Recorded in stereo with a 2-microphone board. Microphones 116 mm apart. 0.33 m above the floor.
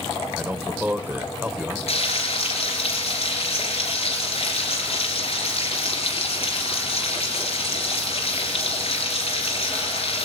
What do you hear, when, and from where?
0.3 s a man speaking: 15° right (ahead or behind), 1.1 m
1.9 s frying: 60° left (ahead or behind), 4 m